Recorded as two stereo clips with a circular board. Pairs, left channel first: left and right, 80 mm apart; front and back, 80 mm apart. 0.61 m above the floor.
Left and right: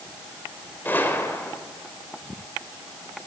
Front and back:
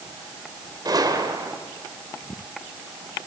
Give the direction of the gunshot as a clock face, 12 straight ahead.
7 o'clock.